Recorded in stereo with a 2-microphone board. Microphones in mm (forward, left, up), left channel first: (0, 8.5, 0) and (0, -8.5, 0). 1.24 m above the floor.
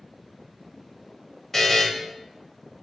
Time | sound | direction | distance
1.5 | a buzzer | 15° left (ahead or behind) | 0.6 m